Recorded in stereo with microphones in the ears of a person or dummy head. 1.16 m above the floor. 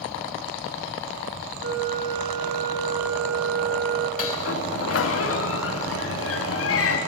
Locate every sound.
1.6 s a flute: 50° right (ahead or behind), 5.5 m
4.2 s a sliding door: 70° left (ahead or behind), 2.5 m